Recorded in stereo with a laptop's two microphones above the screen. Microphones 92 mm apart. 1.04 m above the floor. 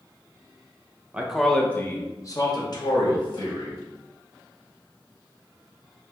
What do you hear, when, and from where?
1.1 s a man speaking: 15° right (ahead or behind), 0.8 m; by 3.8 s 70° left (ahead or behind), 1.8 m